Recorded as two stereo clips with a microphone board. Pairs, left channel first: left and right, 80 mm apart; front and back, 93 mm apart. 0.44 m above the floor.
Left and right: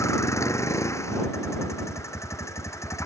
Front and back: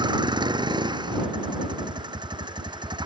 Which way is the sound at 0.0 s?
145° left.